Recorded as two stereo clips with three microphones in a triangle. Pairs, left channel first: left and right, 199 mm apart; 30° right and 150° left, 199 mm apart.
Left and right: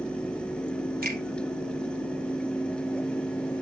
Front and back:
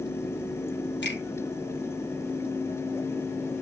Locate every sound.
1.0 s a finger snap: 50° right, 5 m